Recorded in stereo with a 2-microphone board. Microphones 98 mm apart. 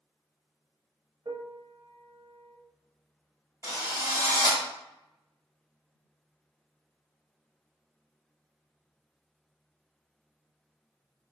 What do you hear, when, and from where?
1.2 s a piano: 55° right (ahead or behind), 0.7 m
3.6 s a drill: 30° right (ahead or behind), 1.6 m